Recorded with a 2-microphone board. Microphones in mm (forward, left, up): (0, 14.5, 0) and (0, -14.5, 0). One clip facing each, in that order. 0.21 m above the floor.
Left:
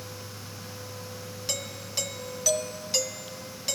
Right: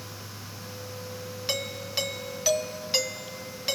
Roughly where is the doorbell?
Right.